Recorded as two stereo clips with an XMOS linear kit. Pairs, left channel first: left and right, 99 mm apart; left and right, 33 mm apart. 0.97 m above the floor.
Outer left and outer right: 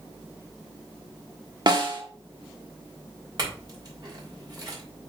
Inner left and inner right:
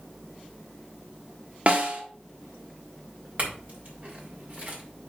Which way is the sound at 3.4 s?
45° right (ahead or behind).